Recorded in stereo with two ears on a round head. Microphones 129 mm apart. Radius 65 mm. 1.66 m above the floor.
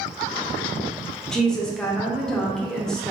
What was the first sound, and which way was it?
A woman speaking, 5° left (ahead or behind).